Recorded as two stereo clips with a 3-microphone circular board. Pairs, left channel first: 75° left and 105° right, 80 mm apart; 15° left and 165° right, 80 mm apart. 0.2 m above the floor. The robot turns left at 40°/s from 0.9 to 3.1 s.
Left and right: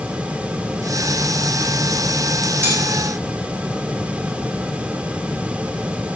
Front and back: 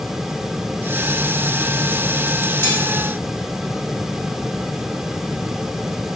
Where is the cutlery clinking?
45° right, 7 m; by 2.8 s 50° right, 7 m.